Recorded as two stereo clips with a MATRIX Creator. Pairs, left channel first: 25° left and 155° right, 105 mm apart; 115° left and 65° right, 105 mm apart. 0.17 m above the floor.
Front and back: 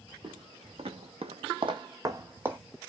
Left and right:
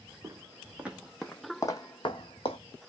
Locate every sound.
0.2 s footsteps: 130° right, 0.9 m; by 2.6 s 130° left, 0.7 m